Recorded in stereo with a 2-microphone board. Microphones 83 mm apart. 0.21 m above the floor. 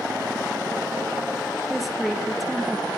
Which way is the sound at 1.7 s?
Centre (ahead or behind).